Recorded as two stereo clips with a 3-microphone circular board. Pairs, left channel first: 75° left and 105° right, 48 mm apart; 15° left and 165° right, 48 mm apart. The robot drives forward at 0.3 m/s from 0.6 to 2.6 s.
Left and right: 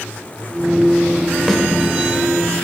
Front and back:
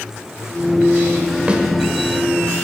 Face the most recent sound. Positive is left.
turn(degrees=170)